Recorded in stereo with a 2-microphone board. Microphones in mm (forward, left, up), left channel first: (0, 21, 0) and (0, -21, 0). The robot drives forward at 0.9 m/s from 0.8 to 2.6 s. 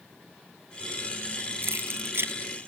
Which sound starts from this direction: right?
Keys jangling, at 1.6 s.